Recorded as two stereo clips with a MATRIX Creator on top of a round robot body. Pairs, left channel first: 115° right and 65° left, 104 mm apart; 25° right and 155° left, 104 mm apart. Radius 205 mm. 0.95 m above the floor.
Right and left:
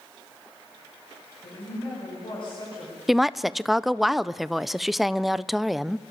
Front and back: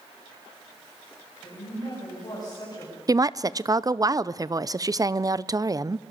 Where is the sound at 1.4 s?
75° right, 9 m.